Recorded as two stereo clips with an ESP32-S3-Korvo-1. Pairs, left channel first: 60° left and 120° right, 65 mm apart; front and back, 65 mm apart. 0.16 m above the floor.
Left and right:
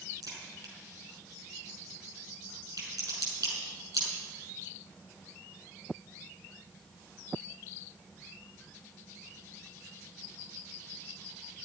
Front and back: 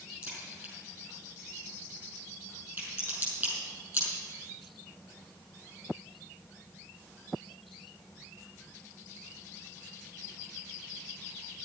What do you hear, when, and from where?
0.2 s a crack: 125° right, 6 m